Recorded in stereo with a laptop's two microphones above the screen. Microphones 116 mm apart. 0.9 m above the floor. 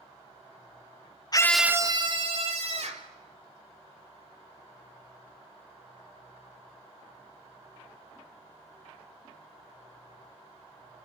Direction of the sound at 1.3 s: 35° left (ahead or behind).